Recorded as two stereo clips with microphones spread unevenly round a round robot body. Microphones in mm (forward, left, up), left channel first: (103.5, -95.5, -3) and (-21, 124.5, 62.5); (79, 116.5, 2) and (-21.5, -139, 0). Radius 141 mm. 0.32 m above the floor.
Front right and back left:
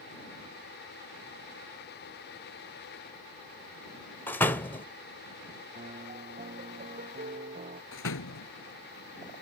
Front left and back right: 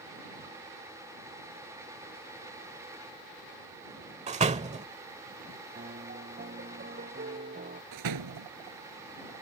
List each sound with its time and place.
4.3 s a door slam: 90° right
5.8 s a piano: 175° right
7.9 s a door slam: 100° right